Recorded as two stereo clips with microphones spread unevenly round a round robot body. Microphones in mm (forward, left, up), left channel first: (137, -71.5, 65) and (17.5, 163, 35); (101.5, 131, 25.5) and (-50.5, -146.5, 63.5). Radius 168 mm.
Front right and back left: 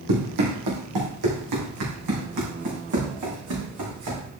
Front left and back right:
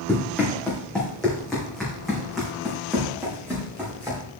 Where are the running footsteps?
150° left, 2.5 m; by 4.2 s 155° left, 4.5 m.